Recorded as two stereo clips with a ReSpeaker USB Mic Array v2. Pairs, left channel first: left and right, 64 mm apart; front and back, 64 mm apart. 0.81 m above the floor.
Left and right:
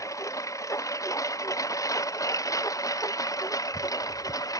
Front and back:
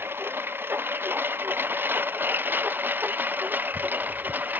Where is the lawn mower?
125° left; by 4.6 s 120° left.